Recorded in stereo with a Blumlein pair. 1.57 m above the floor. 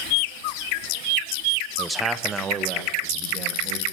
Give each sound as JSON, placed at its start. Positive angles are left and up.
{"t": 1.8, "sound": "a man speaking", "azimuth_deg": 10, "distance_m": 1.0}